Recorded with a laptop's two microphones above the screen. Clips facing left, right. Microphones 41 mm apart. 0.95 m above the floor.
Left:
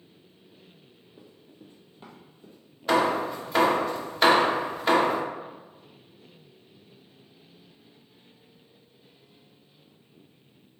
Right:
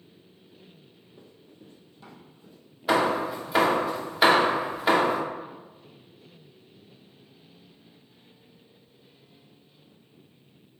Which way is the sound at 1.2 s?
15° left (ahead or behind).